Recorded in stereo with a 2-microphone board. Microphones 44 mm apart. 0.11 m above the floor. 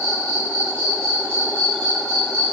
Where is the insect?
25° left (ahead or behind), 1.8 m.